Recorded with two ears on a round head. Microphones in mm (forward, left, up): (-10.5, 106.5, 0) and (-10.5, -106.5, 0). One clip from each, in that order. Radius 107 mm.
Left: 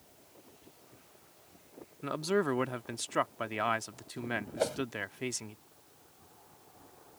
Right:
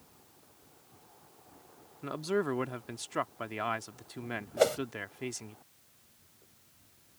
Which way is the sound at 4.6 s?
45° right (ahead or behind).